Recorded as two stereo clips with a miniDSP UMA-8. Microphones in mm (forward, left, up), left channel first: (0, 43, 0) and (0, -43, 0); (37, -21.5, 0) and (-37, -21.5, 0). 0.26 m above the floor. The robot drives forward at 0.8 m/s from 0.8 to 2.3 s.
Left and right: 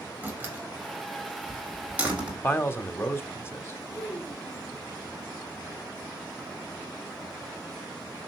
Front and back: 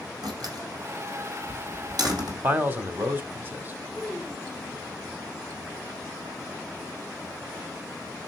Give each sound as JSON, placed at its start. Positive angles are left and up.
{"t": 0.2, "sound": "a door slam", "azimuth_deg": -160, "distance_m": 5.0}
{"t": 2.4, "sound": "a man speaking", "azimuth_deg": 135, "distance_m": 1.1}
{"t": 3.9, "sound": "a child speaking", "azimuth_deg": 100, "distance_m": 1.4}